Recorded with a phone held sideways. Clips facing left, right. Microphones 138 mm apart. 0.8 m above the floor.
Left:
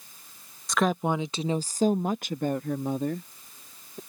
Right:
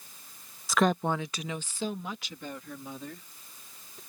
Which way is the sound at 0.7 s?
5° right (ahead or behind).